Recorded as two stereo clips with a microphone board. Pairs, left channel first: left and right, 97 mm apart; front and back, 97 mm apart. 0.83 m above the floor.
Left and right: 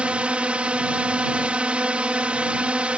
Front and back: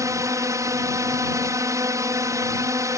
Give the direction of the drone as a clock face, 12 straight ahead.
5 o'clock.